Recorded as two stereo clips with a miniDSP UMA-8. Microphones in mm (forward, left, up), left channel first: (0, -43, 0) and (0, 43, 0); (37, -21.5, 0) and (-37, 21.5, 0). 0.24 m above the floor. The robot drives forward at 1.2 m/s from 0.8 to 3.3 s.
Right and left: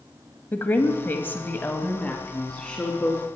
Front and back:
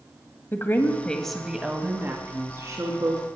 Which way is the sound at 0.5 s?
55° right.